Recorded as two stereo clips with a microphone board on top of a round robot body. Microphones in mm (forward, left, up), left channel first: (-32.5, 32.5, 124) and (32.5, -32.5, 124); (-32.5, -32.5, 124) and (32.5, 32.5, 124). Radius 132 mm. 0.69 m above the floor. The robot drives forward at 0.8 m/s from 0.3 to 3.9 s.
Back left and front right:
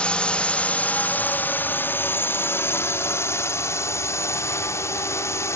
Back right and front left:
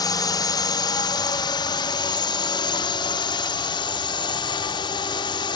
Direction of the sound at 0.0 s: 150° right.